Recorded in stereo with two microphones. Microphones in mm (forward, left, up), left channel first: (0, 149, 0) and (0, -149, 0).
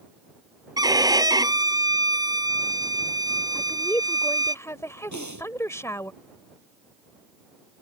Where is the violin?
15° right (ahead or behind).